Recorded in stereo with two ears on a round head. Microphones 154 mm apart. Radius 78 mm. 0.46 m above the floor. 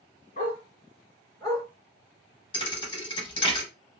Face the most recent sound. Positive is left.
turn(degrees=30)  # may be behind; listen again after turning